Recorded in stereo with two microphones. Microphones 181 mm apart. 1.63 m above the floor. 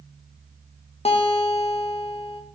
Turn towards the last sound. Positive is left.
turn(degrees=35)  # may be behind; listen again after turning